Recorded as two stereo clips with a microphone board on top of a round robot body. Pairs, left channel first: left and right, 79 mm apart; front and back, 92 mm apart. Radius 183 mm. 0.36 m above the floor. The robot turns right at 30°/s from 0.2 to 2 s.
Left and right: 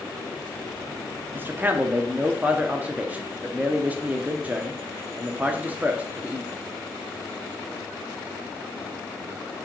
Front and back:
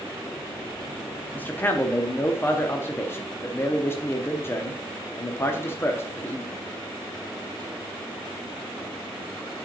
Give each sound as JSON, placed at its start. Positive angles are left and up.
{"t": 1.3, "sound": "a man speaking", "azimuth_deg": -55, "distance_m": 0.9}